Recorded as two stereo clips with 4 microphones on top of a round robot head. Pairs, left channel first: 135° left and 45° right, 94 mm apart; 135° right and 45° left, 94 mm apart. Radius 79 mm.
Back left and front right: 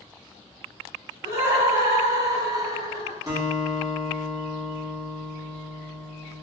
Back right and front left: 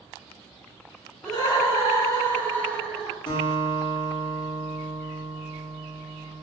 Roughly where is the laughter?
Right.